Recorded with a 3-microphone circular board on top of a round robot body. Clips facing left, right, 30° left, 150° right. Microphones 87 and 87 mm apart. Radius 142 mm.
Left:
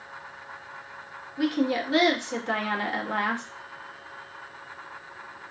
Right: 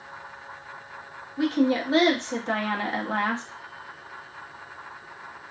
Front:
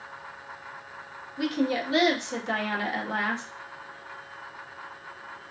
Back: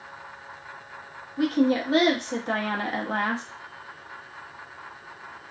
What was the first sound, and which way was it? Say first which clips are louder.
A woman speaking: right 2 dB, back 5 dB; 135° right.